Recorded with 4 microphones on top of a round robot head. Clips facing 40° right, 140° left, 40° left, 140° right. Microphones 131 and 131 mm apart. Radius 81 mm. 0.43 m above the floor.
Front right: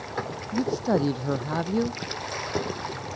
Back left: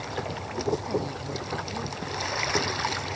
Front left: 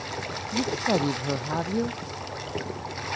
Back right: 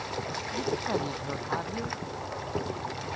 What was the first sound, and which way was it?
A woman speaking, 10° right.